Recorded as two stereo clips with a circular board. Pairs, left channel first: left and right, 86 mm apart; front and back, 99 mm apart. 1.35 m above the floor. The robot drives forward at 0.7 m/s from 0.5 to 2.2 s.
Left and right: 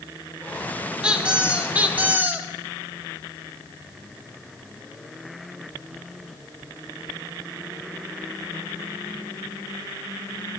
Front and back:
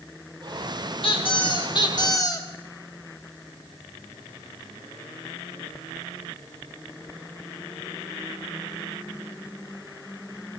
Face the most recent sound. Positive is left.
turn(degrees=-30)